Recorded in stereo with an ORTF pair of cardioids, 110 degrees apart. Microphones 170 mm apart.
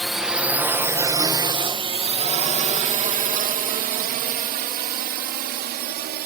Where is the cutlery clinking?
I don't hear cutlery clinking.